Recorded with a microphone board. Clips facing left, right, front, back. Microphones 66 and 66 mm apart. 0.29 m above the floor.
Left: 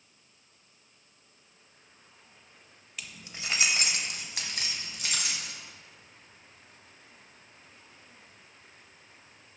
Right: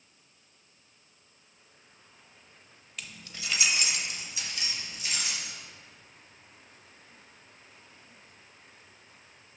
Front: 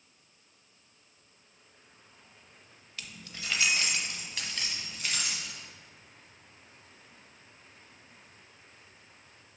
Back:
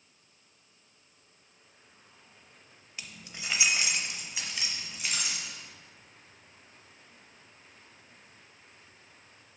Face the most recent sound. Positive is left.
turn(degrees=100)